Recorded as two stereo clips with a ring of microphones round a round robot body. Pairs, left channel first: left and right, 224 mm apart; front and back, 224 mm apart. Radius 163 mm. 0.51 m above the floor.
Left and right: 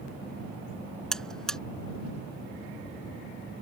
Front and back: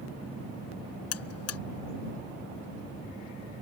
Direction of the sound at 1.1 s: 5° left.